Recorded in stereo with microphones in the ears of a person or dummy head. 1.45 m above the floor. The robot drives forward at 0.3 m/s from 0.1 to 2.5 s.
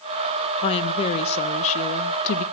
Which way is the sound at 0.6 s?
30° left (ahead or behind).